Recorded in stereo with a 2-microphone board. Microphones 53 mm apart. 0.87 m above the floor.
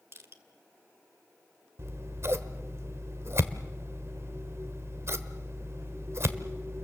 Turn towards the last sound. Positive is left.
turn(degrees=-55)  # may be behind; listen again after turning